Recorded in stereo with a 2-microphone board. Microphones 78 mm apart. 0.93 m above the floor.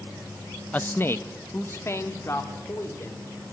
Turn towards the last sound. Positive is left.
turn(degrees=35)  # may be behind; listen again after turning